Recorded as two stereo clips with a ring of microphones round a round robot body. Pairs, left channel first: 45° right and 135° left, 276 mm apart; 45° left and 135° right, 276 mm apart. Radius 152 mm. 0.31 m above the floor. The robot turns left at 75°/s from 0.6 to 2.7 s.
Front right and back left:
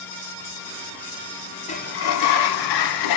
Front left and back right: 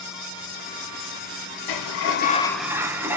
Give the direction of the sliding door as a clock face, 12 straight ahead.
11 o'clock.